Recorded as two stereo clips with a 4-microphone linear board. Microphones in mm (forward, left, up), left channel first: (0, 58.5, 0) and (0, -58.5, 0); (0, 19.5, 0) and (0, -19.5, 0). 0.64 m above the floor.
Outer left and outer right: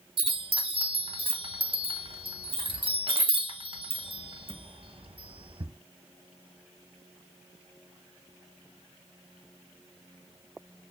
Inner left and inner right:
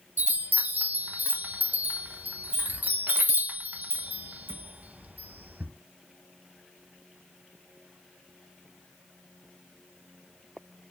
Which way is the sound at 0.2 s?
55° right (ahead or behind).